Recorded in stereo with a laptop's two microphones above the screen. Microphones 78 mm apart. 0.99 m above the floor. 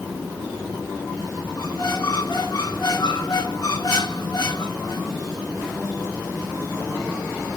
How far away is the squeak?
About 4 m.